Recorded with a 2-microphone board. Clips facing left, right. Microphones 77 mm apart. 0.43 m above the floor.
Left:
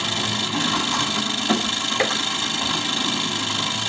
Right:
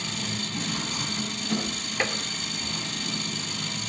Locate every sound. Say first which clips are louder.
0.0 s an engine running: left 7 dB; 70° left (ahead or behind), 2.5 m
2.0 s tapping: left 5 dB; 25° left (ahead or behind), 0.7 m